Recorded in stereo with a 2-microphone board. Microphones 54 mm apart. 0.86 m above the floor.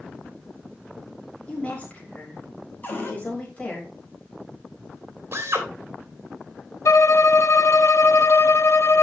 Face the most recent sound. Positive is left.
turn(degrees=70)  # may be behind; listen again after turning